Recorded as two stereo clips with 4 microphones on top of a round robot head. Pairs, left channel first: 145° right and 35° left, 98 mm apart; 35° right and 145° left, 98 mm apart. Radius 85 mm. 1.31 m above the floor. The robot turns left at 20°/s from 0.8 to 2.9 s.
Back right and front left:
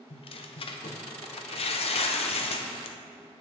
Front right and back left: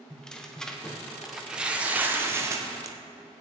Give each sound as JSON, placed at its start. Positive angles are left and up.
{"t": 0.1, "sound": "tearing paper", "azimuth_deg": -120, "distance_m": 0.9}